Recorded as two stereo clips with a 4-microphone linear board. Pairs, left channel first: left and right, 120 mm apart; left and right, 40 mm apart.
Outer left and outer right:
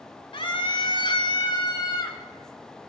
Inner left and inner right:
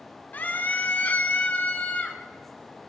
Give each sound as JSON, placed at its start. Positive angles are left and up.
{"t": 0.3, "sound": "a scream", "side_deg": 45, "distance_m": 1.2}